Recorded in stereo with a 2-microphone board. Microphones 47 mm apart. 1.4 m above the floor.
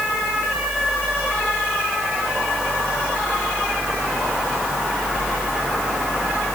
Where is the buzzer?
I don't hear a buzzer.